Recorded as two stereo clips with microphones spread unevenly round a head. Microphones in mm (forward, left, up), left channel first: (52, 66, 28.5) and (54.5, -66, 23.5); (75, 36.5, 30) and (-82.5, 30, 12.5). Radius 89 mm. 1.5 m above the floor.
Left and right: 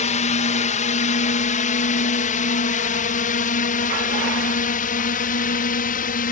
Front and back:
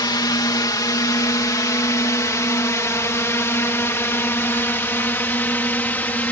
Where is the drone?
70° left; by 6.3 s 85° left.